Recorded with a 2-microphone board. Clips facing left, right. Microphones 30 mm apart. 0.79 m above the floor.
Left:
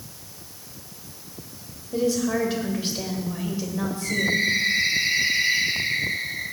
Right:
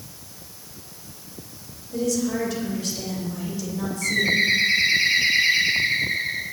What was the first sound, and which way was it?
A woman speaking, 30° left (ahead or behind).